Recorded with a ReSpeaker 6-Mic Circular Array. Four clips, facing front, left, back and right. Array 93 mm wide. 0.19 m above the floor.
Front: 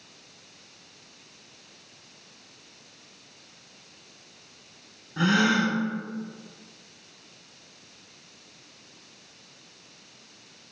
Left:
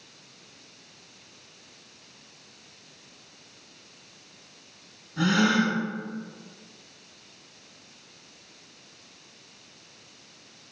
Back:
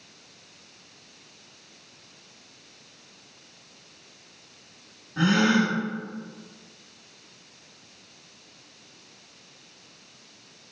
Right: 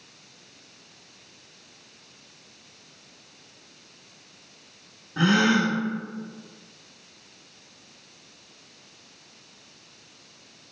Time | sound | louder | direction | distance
5.2 | a gasp | right 2 dB, back 1 dB | 85° right | 0.6 m